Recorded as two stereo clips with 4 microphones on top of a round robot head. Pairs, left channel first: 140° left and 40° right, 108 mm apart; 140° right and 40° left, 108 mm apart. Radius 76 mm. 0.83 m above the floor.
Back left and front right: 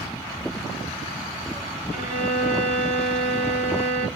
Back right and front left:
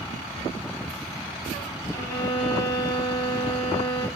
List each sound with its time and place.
1.9 s a violin: 75° right, 1.3 m